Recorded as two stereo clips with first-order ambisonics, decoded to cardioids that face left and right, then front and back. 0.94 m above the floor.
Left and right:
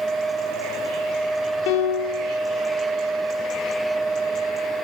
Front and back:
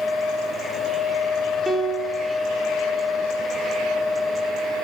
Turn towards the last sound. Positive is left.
turn(degrees=95)